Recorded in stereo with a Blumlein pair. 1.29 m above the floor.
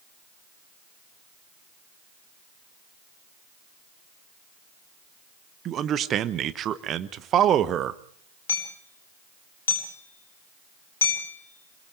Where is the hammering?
65° left, 3.5 m.